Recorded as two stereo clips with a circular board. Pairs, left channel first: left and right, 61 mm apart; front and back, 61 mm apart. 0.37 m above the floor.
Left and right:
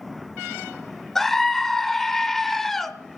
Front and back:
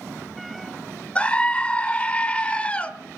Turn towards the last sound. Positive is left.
turn(degrees=15)